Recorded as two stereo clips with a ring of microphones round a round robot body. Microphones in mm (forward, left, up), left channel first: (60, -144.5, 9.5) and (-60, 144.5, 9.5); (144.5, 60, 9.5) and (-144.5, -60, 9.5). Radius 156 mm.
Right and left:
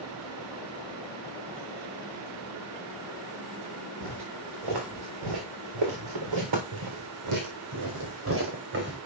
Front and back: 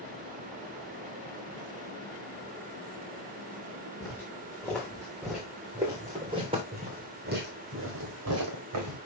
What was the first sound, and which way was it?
Footsteps, 105° left.